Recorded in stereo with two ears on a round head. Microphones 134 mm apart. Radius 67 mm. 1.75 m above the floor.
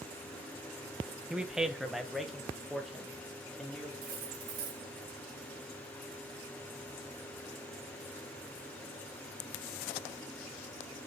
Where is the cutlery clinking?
65° right (ahead or behind), 1.9 m.